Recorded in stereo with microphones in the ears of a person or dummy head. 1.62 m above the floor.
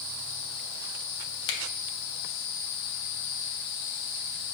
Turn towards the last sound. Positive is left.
turn(degrees=75)  # may be behind; listen again after turning